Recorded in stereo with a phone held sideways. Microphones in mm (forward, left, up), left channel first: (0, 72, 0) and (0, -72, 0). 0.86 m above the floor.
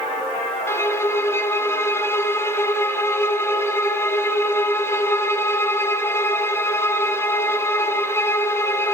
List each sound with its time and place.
0.7 s a violin: 15° left (ahead or behind), 1.3 m